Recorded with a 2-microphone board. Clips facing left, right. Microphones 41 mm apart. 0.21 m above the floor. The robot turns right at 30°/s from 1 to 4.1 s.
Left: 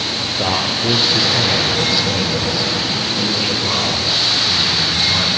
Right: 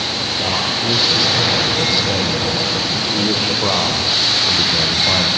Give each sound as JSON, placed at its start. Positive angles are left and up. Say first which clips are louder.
{"t": 0.4, "sound": "a man speaking", "louder": "left 2 dB", "azimuth_deg": 155, "distance_m": 7.0}